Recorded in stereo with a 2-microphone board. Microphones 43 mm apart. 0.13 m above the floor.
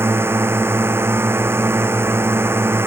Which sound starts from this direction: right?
A drone, at 0.0 s.